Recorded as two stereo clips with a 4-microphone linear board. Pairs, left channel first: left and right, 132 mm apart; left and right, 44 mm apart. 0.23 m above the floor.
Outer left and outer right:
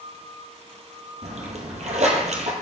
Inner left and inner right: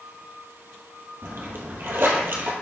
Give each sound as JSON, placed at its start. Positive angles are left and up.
{"t": 1.2, "sound": "a splash", "side_deg": -60, "distance_m": 1.3}